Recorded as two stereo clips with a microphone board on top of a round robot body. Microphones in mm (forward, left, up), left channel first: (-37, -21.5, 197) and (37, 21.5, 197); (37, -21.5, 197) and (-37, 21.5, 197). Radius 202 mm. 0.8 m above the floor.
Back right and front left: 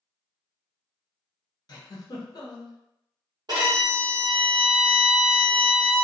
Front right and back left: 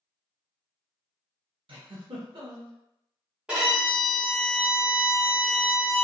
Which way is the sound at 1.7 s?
170° left.